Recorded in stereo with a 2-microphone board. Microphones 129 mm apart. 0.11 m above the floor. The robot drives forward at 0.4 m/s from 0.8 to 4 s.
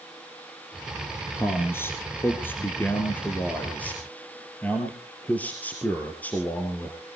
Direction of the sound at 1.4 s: 20° left (ahead or behind).